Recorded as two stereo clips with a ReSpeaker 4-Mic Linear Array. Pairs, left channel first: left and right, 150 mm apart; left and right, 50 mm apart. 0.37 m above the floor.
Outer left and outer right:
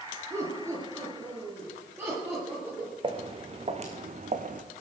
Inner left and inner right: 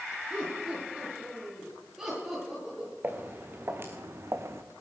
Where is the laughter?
20° right (ahead or behind), 6 m; by 2.9 s 15° right (ahead or behind), 9.5 m.